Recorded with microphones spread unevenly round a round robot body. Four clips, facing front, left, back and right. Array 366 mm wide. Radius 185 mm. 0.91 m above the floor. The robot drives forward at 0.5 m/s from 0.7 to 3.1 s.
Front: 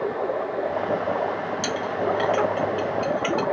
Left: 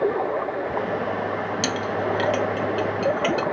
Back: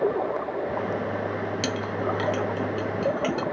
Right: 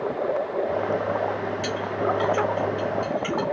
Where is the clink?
95° left, 0.5 m; by 3.4 s 145° left, 0.9 m.